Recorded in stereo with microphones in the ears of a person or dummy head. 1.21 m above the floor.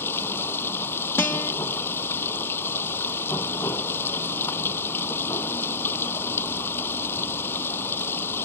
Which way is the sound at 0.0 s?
20° left (ahead or behind).